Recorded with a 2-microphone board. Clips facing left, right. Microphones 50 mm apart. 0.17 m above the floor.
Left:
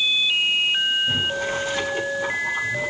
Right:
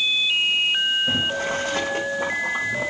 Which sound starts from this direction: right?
Boiling, at 1.1 s.